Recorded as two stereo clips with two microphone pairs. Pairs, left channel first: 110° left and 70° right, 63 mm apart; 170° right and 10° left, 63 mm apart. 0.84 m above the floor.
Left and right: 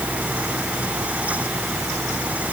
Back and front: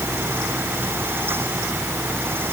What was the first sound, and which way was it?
Only background noise.